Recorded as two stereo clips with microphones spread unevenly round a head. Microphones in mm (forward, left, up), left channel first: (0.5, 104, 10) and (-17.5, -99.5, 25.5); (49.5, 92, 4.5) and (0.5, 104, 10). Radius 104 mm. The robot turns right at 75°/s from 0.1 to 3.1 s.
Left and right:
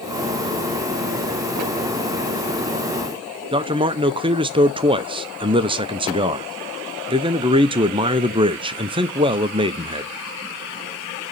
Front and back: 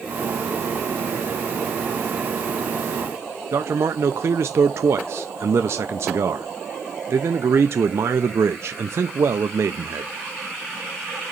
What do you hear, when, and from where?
3.5 s a man speaking: 155° right, 0.5 m